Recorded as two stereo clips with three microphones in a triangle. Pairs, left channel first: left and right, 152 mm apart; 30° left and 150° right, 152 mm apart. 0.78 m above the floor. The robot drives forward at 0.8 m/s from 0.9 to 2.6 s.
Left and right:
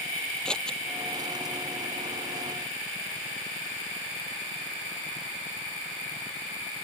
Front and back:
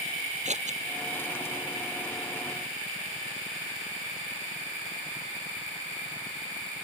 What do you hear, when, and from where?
0.5 s scissors: 175° left